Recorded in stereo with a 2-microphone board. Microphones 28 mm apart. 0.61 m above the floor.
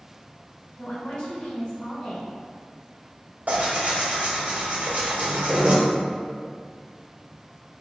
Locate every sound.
0.8 s a woman speaking: 55° left (ahead or behind), 1.6 m
3.5 s tearing paper: 65° right (ahead or behind), 1.0 m